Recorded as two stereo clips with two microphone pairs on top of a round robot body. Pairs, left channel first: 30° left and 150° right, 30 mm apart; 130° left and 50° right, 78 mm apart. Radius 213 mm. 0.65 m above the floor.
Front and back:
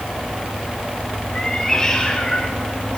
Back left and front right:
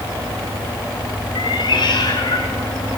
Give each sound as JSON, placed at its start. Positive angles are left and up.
{"t": 1.4, "sound": "a cat meowing", "azimuth_deg": 105, "distance_m": 1.5}